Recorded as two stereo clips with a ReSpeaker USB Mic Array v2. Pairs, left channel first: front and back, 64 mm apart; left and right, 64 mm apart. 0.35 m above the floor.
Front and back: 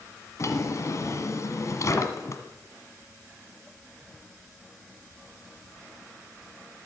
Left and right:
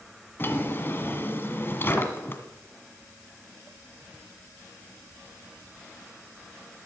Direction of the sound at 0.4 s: 35° left.